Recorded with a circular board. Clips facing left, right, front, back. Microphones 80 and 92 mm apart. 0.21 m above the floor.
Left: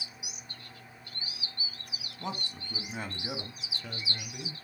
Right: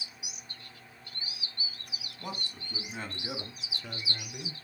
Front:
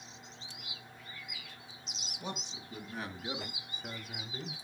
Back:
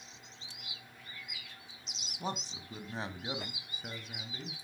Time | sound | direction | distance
2.2 | a man speaking | 150° left | 1.6 m